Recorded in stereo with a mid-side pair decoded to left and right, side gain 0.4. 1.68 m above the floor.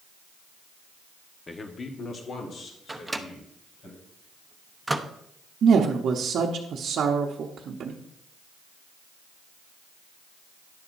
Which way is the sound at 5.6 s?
65° right.